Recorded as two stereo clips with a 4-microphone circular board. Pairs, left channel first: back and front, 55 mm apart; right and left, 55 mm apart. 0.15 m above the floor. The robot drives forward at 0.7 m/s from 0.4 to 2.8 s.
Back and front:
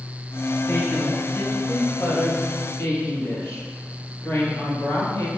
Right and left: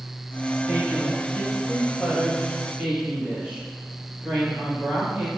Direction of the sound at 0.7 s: 120° left.